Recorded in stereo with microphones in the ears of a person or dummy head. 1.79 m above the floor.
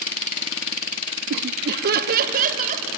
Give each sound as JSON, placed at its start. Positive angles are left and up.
{"t": 1.3, "sound": "laughter", "side_deg": -60, "distance_m": 0.6}